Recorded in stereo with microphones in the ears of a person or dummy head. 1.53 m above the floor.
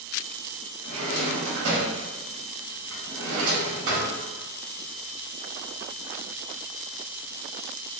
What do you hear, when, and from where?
0.8 s a drawer: 60° right (ahead or behind), 1.4 m